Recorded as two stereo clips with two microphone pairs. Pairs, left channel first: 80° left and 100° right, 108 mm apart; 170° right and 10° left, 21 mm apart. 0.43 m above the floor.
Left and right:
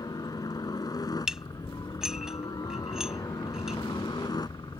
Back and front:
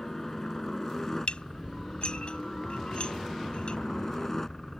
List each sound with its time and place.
0.0 s a helicopter: 130° left; by 4.8 s 125° left
1.3 s dishes clattering: 175° left